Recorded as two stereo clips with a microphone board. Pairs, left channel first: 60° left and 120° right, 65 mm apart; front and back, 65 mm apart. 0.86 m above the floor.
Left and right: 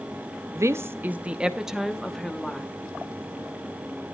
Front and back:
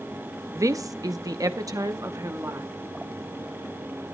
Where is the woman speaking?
150° right, 0.7 m; by 2.7 s 145° left, 1.5 m.